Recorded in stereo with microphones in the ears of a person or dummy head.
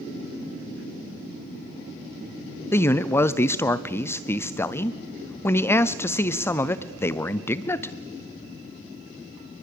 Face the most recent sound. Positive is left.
turn(degrees=15)  # may be behind; listen again after turning